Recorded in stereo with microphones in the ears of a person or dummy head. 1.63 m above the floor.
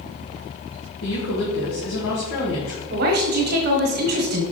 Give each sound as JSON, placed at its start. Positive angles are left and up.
{"t": 1.0, "sound": "a woman speaking", "side_deg": 75, "distance_m": 1.7}
{"t": 2.9, "sound": "a woman speaking", "side_deg": -55, "distance_m": 1.2}